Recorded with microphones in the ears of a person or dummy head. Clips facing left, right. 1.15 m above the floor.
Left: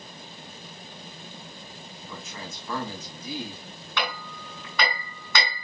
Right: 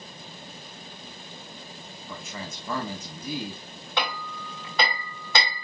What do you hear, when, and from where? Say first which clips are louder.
2.1 s a man speaking: right 2 dB; 45° right (ahead or behind), 5.5 m
4.0 s hammering: right 1 dB; 25° right (ahead or behind), 6.5 m